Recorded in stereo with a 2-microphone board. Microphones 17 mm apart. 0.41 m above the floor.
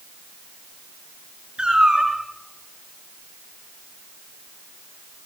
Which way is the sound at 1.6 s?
60° right (ahead or behind).